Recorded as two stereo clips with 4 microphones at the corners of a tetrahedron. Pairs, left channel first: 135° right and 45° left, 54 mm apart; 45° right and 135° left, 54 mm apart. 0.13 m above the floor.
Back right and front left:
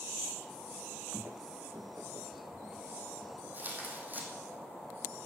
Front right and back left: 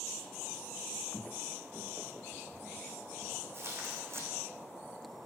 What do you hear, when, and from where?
1.1 s footsteps: 15° right, 0.5 m; by 3.4 s 90° left, 3 m
3.5 s tearing paper: 100° left, 3 m